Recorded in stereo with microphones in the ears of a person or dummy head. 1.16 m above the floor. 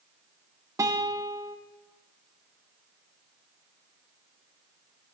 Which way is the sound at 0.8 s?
20° right (ahead or behind).